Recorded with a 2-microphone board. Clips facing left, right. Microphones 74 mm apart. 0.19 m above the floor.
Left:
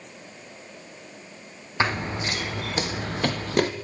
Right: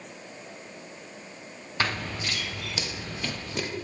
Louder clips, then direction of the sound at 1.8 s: Left 4 dB; 25° left (ahead or behind).